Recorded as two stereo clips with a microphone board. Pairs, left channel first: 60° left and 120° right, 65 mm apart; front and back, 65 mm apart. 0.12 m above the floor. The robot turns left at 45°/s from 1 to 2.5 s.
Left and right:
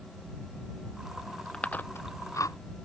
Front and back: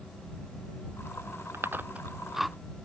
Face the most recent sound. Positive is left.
turn(degrees=90)